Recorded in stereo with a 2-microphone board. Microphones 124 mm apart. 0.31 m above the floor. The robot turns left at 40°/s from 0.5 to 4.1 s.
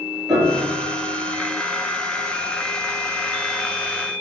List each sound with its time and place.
0.3 s a piano: centre (ahead or behind), 4 m; by 0.8 s 10° right (ahead or behind), 4 m